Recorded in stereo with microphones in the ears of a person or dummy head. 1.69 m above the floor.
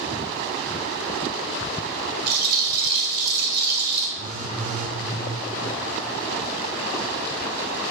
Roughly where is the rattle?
Right.